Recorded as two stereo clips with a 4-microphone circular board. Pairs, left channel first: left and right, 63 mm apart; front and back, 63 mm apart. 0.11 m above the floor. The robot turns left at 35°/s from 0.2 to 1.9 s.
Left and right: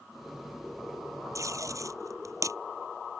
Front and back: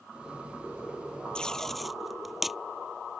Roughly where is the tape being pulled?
Right.